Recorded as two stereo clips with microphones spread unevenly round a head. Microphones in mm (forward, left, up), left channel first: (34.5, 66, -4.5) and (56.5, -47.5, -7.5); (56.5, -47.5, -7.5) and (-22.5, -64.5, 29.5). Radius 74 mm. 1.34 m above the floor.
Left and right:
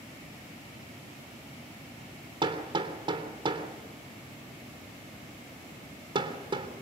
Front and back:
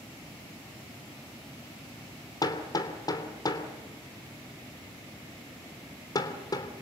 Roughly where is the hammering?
Ahead right.